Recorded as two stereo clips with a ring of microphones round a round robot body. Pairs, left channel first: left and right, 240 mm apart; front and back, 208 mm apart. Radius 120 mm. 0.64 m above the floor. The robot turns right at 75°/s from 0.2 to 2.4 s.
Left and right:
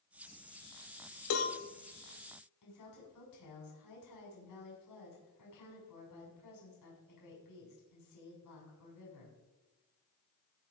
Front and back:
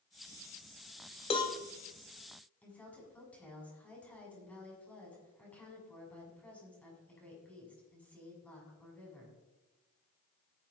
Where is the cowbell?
60° left, 1.9 m; by 1.6 s 80° left, 1.9 m.